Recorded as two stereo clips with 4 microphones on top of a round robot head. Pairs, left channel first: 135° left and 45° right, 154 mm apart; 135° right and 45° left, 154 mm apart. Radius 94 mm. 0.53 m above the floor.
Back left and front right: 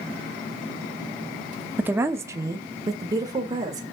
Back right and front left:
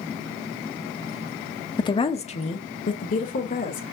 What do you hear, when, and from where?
1.8 s a woman speaking: 110° right, 0.7 m; by 3.8 s 115° right, 1.8 m